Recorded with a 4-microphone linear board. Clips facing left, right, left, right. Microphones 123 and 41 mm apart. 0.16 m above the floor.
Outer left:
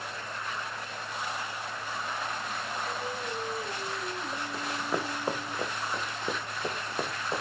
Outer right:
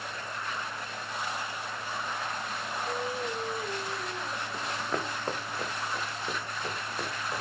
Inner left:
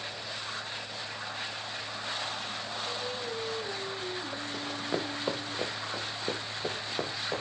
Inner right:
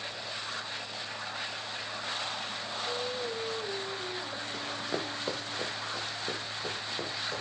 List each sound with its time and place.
2.9 s singing: 10° right (ahead or behind), 7.5 m
4.5 s running footsteps: 5° left (ahead or behind), 2 m; by 7.4 s 25° left (ahead or behind), 3.5 m